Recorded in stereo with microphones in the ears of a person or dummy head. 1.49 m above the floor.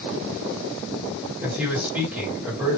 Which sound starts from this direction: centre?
A man speaking, at 1.4 s.